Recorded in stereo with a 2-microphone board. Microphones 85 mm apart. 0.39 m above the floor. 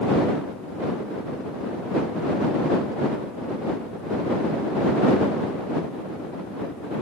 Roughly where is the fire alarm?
No fire alarm in this recording.